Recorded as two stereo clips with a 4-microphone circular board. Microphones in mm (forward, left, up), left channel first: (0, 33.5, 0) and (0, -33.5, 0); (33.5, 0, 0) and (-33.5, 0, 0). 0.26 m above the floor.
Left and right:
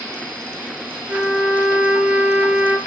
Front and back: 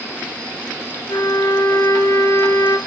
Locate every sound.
1.1 s a trumpet: 25° right, 1.1 m